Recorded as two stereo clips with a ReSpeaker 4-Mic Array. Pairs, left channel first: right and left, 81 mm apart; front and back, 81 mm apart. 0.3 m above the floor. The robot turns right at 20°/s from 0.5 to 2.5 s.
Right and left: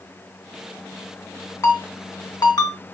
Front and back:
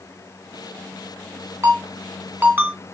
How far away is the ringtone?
About 2.0 m.